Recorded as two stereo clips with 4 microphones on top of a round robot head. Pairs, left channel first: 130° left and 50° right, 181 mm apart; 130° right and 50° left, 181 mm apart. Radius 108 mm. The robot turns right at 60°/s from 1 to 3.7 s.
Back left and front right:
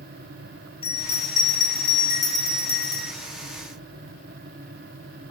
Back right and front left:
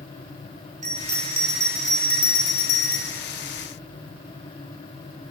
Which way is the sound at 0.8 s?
80° left.